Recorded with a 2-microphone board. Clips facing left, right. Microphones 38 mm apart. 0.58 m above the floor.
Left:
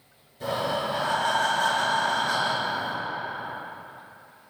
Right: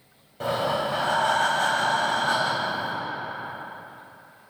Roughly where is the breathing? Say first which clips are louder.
Right 2 dB; right.